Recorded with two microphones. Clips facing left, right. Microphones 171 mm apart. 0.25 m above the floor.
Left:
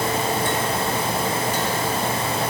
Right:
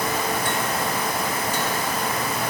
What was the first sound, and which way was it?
Only background noise.